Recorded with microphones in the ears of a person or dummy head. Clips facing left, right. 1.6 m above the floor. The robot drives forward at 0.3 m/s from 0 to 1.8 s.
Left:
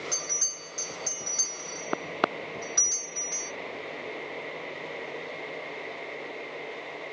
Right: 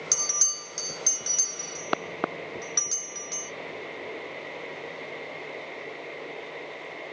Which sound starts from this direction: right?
A bell, at 0.1 s.